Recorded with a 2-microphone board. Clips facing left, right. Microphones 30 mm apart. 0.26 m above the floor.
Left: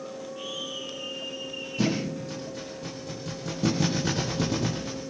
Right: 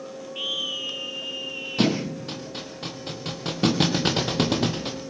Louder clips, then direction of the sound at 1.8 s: Right 4 dB; 80° right.